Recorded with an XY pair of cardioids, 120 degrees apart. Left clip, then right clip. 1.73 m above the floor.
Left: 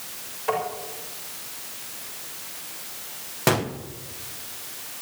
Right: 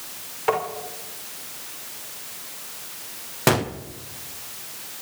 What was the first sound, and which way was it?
Tapping, 55° right.